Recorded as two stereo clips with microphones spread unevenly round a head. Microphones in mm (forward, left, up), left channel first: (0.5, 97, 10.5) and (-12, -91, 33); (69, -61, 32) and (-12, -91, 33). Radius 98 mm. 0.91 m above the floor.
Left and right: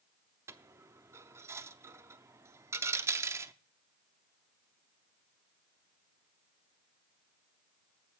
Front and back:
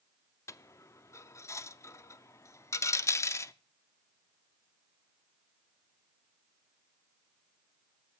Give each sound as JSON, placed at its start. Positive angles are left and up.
{"t": 0.5, "sound": "a dropped coin", "azimuth_deg": -25, "distance_m": 0.5}